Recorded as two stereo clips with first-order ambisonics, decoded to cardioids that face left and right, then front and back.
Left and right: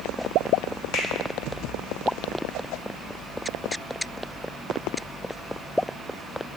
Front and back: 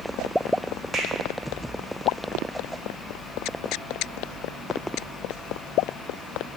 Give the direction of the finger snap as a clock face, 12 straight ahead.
9 o'clock.